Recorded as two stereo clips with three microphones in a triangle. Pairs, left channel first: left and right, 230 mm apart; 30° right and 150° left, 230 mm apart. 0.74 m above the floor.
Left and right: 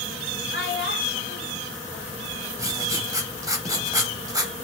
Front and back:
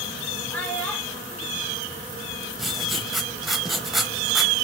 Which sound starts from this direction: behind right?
Writing, at 2.6 s.